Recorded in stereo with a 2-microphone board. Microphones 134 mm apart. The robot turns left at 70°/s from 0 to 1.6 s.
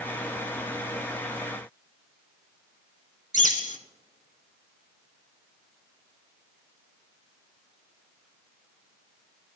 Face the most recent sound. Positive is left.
turn(degrees=80)